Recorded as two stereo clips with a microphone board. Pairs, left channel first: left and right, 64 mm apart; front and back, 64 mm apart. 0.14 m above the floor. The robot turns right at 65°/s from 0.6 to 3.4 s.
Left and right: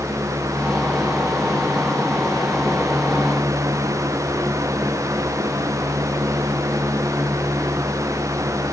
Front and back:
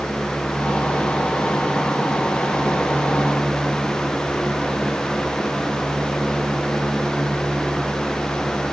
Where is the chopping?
I don't hear chopping.